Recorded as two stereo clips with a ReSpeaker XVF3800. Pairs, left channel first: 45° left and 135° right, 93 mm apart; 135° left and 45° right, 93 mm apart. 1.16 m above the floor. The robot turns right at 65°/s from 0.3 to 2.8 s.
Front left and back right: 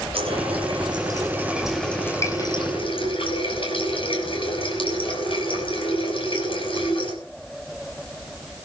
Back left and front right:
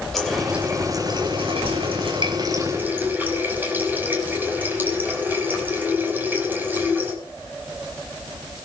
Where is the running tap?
140° right, 5 m; by 7.2 s 25° left, 5 m.